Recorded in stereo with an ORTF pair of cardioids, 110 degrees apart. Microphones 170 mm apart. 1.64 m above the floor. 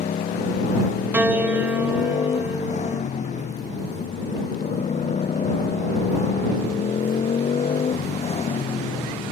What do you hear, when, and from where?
0.0 s a motorcycle: 45° left; by 9.3 s 40° left
1.1 s a piano: 10° right